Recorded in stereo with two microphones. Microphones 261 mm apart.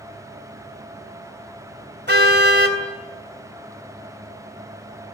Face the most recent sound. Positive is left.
turn(degrees=-40)  # may be behind; listen again after turning